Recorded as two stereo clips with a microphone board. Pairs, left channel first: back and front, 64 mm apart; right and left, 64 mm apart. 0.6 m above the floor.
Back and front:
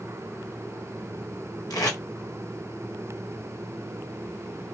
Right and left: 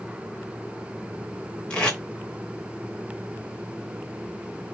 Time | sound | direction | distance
1.7 | tape being pulled | 165° right | 0.9 m